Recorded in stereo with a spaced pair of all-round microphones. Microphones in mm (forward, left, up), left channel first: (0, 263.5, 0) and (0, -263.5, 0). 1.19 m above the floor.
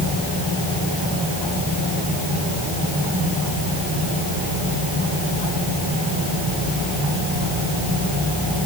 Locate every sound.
Only background noise.